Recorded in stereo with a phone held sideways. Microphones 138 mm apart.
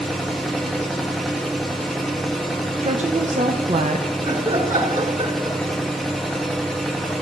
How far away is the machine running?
About 1.4 m.